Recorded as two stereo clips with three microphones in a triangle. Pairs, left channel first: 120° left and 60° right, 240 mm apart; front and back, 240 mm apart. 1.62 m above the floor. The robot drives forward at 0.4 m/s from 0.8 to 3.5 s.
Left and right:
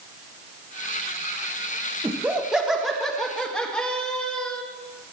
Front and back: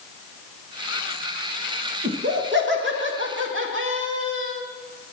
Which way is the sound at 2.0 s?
140° right.